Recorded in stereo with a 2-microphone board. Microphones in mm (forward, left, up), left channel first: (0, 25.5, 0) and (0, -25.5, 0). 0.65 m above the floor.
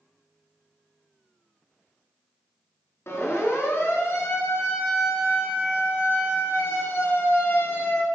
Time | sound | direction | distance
3.1 | a siren | 60° left (ahead or behind) | 6.5 m